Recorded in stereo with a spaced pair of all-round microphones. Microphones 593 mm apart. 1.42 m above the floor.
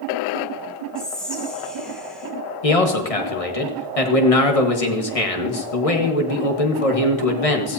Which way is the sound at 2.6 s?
70° left (ahead or behind).